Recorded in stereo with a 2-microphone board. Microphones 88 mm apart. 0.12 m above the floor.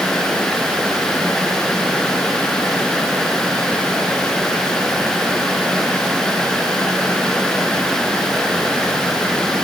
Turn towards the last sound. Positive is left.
No sound to turn to.